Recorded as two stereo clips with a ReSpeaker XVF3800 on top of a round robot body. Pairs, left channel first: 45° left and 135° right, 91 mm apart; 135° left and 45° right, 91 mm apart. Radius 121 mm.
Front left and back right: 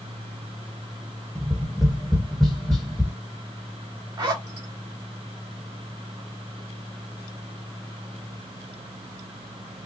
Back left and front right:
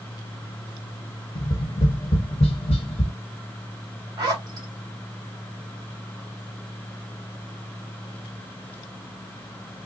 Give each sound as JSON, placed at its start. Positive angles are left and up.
{"t": 1.4, "sound": "tapping", "azimuth_deg": 130, "distance_m": 1.4}
{"t": 4.2, "sound": "a zipper", "azimuth_deg": -95, "distance_m": 2.5}